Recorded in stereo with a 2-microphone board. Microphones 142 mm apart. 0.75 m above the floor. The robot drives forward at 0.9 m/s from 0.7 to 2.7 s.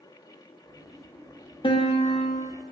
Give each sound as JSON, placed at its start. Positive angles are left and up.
{"t": 1.6, "sound": "a piano", "side_deg": 40, "distance_m": 1.3}